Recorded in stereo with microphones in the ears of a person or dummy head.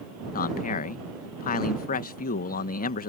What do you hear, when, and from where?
0.3 s a man speaking: 45° left (ahead or behind)